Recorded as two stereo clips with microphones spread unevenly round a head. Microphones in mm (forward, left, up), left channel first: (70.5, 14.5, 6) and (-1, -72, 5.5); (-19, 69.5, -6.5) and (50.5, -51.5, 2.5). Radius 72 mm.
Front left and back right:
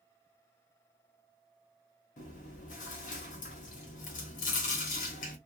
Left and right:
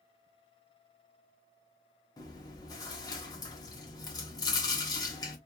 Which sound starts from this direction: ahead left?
Chewing, at 2.2 s.